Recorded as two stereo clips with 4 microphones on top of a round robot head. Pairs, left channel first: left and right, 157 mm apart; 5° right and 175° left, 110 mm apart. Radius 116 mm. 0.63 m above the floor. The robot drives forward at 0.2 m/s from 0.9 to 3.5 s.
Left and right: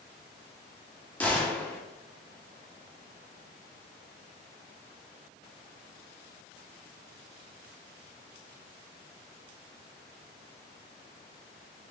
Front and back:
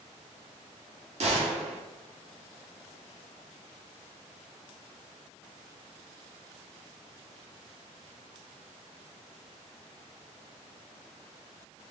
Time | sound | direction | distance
1.2 | a gunshot | 170° left | 1.1 m